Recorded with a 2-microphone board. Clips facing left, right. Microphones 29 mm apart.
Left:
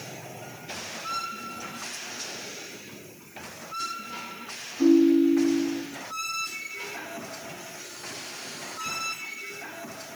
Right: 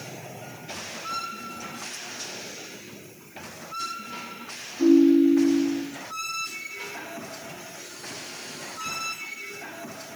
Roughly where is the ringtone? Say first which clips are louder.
Right 2 dB; centre.